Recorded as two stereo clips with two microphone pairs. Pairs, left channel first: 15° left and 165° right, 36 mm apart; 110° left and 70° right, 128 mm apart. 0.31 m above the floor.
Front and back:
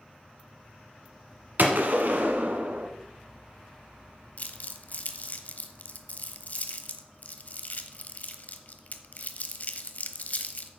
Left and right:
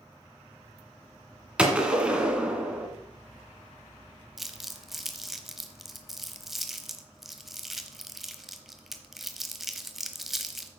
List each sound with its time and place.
1.6 s a gunshot: 150° right, 1.7 m
4.4 s crumpling: 15° left, 1.0 m